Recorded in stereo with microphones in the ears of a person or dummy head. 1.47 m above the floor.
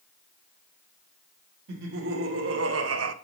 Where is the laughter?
70° right (ahead or behind), 1.7 m; by 3.1 s 80° right, 0.9 m.